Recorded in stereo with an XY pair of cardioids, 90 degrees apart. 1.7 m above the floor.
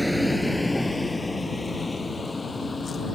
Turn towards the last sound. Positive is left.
turn(degrees=35)